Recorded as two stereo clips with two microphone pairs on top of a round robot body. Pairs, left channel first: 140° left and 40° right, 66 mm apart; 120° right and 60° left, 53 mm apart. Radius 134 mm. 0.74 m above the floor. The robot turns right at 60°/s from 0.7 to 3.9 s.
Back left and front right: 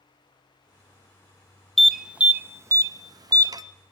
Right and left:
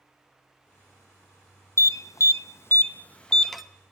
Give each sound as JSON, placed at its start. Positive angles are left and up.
{"t": 1.8, "sound": "an alarm", "azimuth_deg": -135, "distance_m": 0.7}